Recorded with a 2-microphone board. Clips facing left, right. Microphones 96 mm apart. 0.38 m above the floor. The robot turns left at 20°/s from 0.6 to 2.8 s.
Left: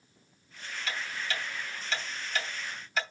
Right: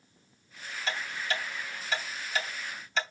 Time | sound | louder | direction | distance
0.9 | ticking | right 3 dB | 30° right (ahead or behind) | 2.5 m